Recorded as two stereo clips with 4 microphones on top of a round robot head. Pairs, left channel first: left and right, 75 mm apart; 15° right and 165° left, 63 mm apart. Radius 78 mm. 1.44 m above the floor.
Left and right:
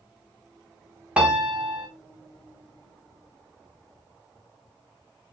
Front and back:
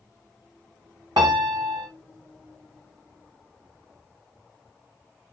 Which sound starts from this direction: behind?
A piano, at 1.2 s.